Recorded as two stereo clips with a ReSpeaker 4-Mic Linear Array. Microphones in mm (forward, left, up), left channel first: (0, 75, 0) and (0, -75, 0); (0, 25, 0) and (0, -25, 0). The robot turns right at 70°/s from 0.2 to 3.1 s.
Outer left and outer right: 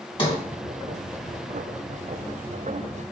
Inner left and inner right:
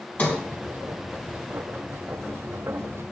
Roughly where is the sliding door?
Left.